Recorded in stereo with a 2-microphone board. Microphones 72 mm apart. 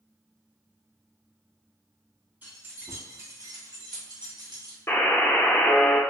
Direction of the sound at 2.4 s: 25° right (ahead or behind).